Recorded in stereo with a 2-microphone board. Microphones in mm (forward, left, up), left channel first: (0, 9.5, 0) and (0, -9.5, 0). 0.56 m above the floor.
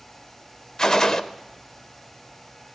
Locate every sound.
0.8 s a gunshot: 35° left (ahead or behind), 0.5 m